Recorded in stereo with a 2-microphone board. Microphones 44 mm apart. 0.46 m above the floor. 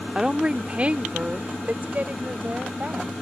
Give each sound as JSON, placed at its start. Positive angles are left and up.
{"t": 0.1, "sound": "a woman speaking", "side_deg": -15}